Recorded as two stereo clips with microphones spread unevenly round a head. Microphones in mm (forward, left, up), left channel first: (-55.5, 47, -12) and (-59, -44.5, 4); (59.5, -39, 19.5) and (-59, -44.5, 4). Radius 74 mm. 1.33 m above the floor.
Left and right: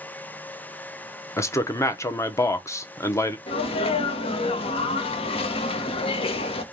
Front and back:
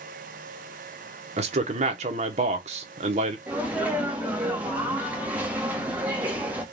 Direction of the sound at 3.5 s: 100° left.